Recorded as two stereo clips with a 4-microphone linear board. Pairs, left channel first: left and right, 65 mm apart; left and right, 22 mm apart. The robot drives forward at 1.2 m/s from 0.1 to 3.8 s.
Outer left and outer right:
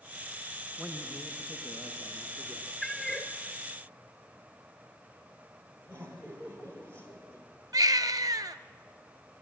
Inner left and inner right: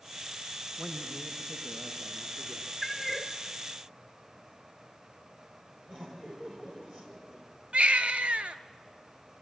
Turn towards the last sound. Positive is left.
turn(degrees=-70)  # may be behind; listen again after turning